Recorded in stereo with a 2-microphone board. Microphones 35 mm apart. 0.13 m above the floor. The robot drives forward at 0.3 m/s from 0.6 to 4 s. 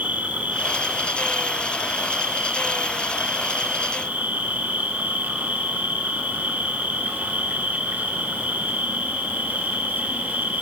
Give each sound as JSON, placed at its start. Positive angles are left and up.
{"t": 0.0, "sound": "an insect", "side_deg": -55, "distance_m": 3.5}